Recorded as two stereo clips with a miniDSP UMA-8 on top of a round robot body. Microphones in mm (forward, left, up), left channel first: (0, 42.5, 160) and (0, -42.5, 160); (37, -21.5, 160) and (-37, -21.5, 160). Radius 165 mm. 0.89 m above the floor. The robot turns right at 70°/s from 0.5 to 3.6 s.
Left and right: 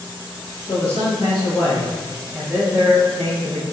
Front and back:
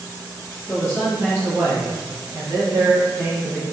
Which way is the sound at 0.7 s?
65° left.